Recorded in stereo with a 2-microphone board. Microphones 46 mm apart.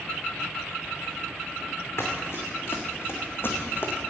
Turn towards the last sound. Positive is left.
turn(degrees=50)  # may be behind; listen again after turning